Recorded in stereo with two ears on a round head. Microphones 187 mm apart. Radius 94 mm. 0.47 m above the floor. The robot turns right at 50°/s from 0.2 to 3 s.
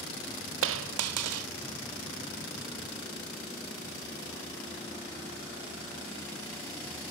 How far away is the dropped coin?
About 0.5 m.